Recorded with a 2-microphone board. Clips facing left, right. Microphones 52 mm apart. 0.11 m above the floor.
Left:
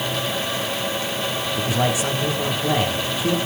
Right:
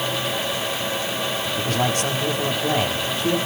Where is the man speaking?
10° left (ahead or behind), 7 m.